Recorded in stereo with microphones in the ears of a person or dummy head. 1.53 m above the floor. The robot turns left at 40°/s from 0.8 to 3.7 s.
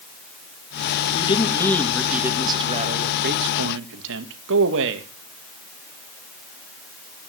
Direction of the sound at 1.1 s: 30° left.